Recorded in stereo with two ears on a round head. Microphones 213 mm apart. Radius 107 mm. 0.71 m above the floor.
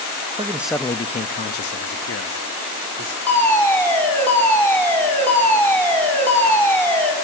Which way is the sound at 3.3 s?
10° left (ahead or behind).